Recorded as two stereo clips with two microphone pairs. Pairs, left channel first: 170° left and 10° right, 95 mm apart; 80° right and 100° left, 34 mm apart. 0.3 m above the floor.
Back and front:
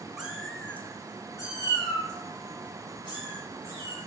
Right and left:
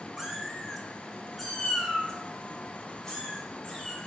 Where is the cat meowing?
50° left, 0.6 m; by 4.1 s 155° right, 2.0 m.